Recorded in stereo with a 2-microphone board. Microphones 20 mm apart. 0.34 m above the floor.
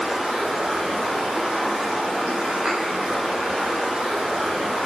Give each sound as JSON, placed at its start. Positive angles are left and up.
{"t": 0.0, "sound": "running water", "side_deg": -65, "distance_m": 6.0}
{"t": 2.6, "sound": "a thud", "side_deg": -55, "distance_m": 7.5}